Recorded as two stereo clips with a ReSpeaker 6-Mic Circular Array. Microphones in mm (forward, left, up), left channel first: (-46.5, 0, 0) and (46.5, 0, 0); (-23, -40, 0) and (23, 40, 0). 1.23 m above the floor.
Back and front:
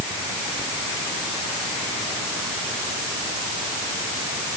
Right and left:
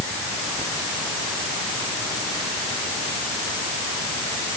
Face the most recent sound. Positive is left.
No sound to turn to.